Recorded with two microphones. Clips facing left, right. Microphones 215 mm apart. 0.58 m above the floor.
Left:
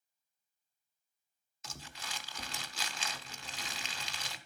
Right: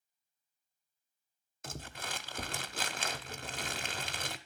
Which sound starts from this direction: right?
Crumpling, at 1.6 s.